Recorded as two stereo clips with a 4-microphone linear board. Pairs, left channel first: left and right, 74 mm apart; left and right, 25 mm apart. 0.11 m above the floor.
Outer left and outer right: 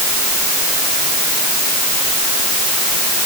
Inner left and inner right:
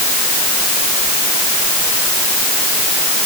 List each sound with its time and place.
Only background noise.